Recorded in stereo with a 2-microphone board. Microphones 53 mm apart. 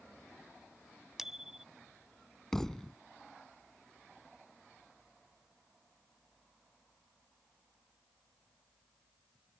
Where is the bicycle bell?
10° right (ahead or behind).